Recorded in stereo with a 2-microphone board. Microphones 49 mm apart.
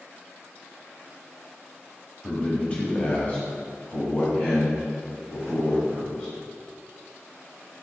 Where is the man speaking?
15° left (ahead or behind), 1.0 m; by 6.3 s 50° left (ahead or behind), 3 m.